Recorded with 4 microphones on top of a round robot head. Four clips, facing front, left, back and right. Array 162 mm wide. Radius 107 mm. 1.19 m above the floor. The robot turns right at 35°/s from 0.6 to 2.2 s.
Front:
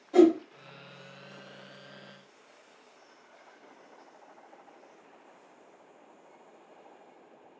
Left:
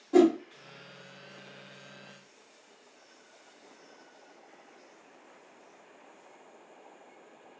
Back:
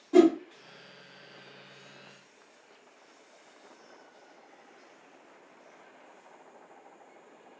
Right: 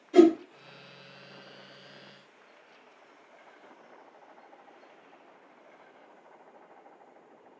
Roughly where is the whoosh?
Behind left.